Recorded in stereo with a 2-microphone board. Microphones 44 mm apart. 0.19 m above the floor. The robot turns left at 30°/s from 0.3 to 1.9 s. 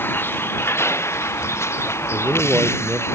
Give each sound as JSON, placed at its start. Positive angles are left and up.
{"t": 0.0, "sound": "a vehicle", "azimuth_deg": 125}
{"t": 2.1, "sound": "a man speaking", "side_deg": -20}